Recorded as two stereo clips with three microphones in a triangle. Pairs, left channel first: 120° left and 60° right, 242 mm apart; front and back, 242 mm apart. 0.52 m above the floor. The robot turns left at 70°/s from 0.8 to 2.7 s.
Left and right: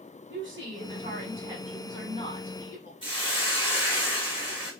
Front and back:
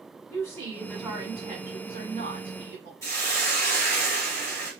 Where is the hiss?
70° left, 1.1 m.